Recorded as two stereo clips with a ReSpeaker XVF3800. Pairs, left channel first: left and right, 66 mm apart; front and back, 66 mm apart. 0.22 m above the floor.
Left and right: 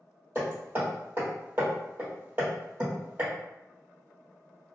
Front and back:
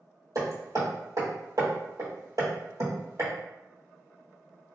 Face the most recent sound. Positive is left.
turn(degrees=-150)